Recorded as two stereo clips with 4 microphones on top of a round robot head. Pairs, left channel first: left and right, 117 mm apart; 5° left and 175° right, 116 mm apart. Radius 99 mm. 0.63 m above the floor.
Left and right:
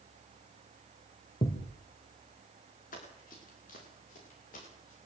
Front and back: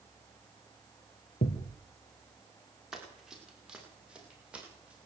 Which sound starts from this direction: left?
Running footsteps, at 2.9 s.